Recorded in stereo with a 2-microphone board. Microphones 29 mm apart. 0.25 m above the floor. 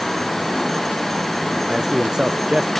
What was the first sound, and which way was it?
A man speaking, 20° right (ahead or behind).